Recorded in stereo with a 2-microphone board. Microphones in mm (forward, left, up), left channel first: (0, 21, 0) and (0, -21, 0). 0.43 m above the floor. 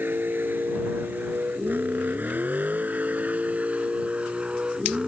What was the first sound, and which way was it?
A vehicle, 60° right (ahead or behind).